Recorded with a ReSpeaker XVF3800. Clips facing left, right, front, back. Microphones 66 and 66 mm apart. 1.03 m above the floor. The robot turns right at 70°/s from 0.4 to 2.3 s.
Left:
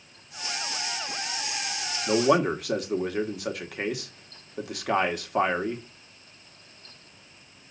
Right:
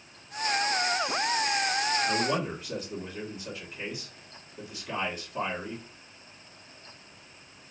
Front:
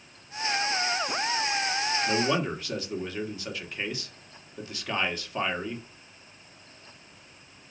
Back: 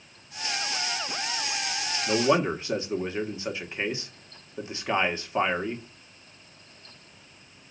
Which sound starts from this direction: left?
A man speaking, at 2.1 s.